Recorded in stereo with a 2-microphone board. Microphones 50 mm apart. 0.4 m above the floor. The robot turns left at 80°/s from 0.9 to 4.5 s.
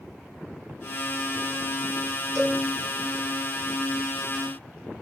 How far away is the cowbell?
About 2.5 m.